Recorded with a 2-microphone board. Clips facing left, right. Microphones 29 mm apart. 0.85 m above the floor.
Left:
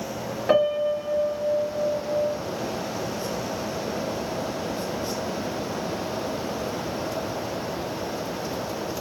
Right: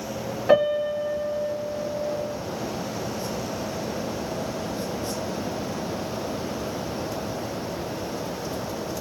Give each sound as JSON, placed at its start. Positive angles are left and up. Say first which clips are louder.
{"t": 0.5, "sound": "a piano", "louder": "right 1 dB", "side_deg": 10, "distance_m": 1.5}